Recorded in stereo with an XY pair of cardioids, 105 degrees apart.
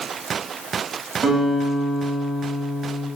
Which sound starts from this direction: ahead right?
A guitar, at 1.2 s.